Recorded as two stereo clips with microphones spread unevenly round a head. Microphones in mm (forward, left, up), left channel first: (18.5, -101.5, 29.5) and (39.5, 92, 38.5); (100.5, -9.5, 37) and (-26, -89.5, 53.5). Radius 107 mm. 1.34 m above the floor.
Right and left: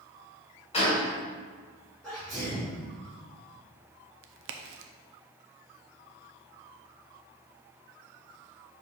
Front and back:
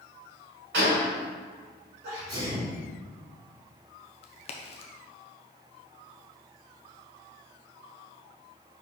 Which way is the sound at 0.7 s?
160° right.